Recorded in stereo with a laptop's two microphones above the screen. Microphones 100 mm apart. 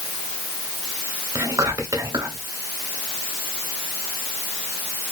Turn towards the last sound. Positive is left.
turn(degrees=-30)  # may be behind; listen again after turning